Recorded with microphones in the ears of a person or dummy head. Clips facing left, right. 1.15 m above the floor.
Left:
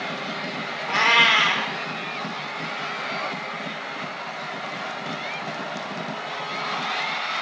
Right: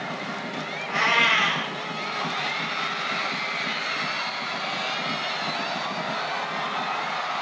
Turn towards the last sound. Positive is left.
turn(degrees=65)  # may be behind; listen again after turning